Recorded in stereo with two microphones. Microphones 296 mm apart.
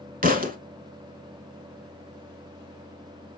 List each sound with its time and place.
0.2 s a thud: 30° right (ahead or behind), 0.8 m